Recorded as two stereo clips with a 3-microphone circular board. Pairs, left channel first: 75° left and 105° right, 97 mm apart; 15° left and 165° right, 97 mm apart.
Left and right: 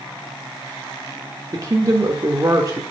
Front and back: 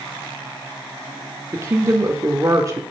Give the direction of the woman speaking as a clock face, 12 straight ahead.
4 o'clock.